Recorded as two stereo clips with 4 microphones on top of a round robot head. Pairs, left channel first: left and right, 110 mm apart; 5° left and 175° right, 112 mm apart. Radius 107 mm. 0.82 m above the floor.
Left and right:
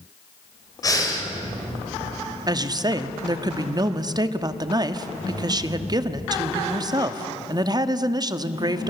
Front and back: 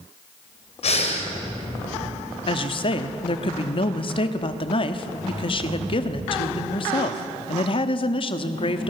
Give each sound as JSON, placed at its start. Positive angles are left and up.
{"t": 0.8, "sound": "breathing", "azimuth_deg": 30, "distance_m": 4.0}
{"t": 2.5, "sound": "a woman speaking", "azimuth_deg": -40, "distance_m": 1.4}